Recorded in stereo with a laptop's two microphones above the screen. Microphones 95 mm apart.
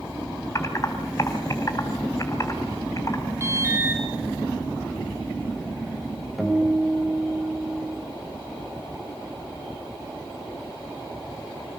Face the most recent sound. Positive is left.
turn(degrees=0)  # may be behind; listen again after turning